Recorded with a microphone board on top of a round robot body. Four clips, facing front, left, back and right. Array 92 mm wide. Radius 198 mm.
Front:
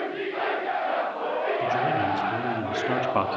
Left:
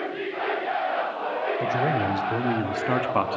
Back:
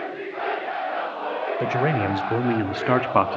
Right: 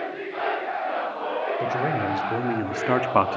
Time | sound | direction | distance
1.6 | a man speaking | straight behind | 3 m